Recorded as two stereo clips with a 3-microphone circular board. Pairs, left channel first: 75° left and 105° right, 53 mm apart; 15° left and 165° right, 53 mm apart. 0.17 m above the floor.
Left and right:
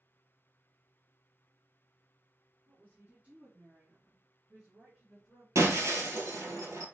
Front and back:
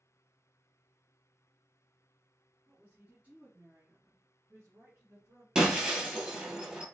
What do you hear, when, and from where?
2.7 s a woman speaking: 110° right, 1.5 m; by 5.5 s 165° left, 2.5 m
5.5 s breaking glass: 90° right, 1.4 m